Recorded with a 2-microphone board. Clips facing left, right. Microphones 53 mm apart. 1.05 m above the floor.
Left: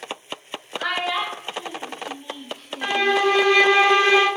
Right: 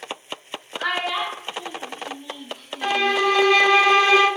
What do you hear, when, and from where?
0.8 s a child speaking: 10° right (ahead or behind), 1.2 m; by 3.1 s 60° left (ahead or behind), 1.0 m
2.8 s a violin: 20° left (ahead or behind), 1.3 m